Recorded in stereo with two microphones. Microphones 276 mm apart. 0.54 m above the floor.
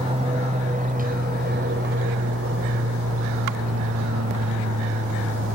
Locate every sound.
0.0 s an aircraft: 20° right (ahead or behind); by 5.6 s 60° right (ahead or behind)